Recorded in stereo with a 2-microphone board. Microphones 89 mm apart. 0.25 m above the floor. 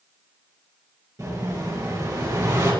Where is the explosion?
40° right (ahead or behind), 7 m.